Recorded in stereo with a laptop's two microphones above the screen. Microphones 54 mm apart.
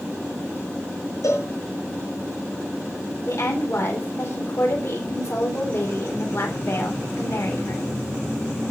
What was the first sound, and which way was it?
A cowbell, 75° left (ahead or behind).